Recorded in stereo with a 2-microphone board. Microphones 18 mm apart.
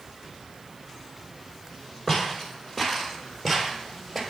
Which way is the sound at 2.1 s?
35° left (ahead or behind).